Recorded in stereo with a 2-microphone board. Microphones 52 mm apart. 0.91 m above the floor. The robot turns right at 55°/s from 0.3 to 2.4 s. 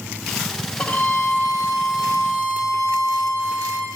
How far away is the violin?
About 1.3 m.